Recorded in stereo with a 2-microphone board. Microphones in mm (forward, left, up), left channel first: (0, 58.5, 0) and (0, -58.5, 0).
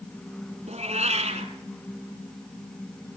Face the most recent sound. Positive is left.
turn(degrees=-55)  # may be behind; listen again after turning